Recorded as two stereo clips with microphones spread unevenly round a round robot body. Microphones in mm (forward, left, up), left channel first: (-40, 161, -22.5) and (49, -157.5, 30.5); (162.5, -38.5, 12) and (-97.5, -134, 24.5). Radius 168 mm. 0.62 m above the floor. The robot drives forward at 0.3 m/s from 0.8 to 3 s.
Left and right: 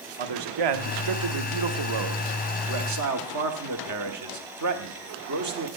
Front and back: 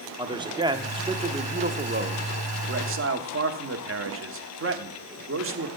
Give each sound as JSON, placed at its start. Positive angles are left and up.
{"t": 0.2, "sound": "a man speaking", "azimuth_deg": -85, "distance_m": 1.2}